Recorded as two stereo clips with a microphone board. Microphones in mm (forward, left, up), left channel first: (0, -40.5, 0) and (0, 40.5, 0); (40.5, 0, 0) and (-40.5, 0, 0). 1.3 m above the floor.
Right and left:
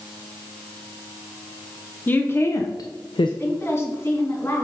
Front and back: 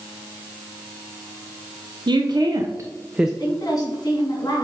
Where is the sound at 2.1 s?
160° right, 0.8 m; by 3.3 s 95° right, 0.5 m.